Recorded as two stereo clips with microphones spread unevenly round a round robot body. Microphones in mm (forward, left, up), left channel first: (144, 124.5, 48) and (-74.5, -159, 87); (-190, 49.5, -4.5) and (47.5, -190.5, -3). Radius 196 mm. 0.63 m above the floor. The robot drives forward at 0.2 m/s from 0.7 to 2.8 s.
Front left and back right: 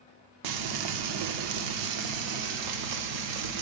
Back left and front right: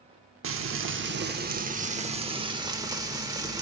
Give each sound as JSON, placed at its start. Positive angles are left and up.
{"t": 0.4, "sound": "frying", "azimuth_deg": -100, "distance_m": 0.8}